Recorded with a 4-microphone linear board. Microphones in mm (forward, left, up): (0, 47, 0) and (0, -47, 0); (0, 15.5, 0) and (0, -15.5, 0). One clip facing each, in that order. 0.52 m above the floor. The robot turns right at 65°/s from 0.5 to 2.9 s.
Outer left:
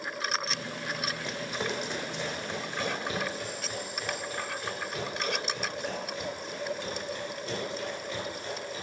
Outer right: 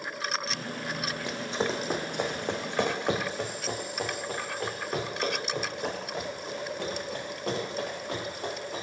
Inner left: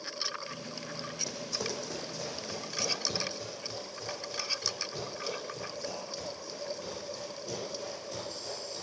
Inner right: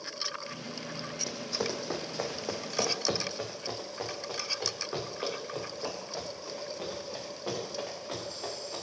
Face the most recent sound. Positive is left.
turn(degrees=-75)  # may be behind; listen again after turning